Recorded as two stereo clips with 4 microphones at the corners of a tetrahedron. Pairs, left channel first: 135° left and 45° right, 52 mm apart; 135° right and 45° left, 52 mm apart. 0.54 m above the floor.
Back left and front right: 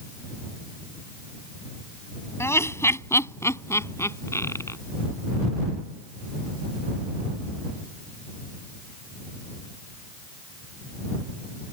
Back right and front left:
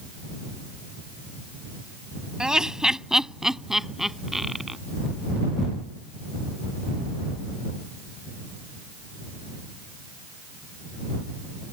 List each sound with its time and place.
2.4 s laughter: 120° left; by 4.8 s 130° left